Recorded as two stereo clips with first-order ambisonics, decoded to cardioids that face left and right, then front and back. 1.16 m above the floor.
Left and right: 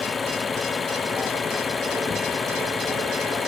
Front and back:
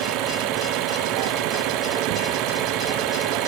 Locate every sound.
0.0 s an engine running: 160° left